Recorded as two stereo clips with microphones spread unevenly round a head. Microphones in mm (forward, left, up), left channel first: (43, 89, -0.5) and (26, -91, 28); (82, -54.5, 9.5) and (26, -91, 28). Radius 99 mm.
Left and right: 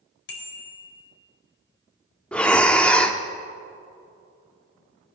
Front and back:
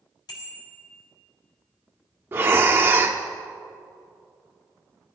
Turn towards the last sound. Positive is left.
turn(degrees=175)